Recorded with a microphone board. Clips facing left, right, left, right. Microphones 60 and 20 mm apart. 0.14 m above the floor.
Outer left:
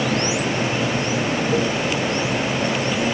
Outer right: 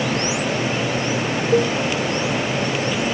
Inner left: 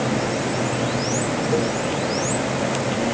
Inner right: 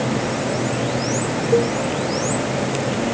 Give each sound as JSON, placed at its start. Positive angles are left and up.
{"t": 1.5, "sound": "a cowbell", "side_deg": -25}